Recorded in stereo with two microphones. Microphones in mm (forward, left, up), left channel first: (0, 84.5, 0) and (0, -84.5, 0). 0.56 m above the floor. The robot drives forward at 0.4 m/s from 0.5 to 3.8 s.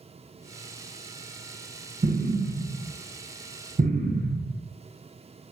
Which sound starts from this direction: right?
An explosion, at 2.0 s.